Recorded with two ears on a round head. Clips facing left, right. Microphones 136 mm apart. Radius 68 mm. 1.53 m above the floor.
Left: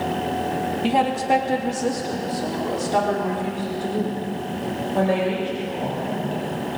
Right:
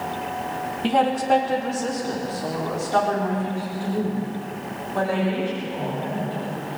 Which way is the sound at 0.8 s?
5° left (ahead or behind).